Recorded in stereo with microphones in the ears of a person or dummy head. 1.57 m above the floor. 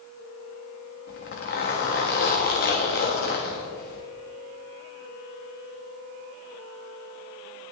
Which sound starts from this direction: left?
A zipper, at 1.1 s.